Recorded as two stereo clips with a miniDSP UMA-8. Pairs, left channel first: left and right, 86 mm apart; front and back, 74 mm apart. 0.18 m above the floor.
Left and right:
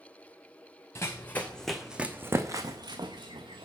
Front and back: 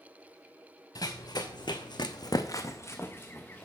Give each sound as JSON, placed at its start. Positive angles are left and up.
{"t": 0.9, "sound": "running footsteps", "azimuth_deg": 30, "distance_m": 0.9}